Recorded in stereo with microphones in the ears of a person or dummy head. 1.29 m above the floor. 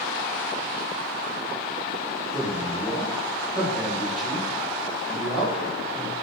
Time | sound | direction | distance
2.3 | a man speaking | 5° right (ahead or behind) | 1.2 m